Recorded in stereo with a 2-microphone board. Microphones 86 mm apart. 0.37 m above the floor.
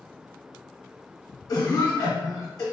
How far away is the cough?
About 1.5 m.